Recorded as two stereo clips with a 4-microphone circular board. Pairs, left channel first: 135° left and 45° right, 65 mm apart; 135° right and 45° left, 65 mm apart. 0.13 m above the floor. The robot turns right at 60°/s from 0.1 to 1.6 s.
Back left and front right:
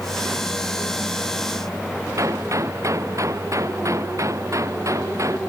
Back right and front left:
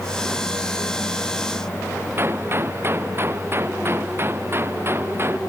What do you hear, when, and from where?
2.2 s a gunshot: 10° right